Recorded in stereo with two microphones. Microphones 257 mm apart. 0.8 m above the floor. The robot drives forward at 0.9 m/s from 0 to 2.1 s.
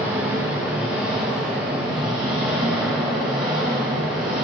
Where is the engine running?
10° right (ahead or behind), 2.5 m; by 4.5 s 5° right (ahead or behind), 4.5 m.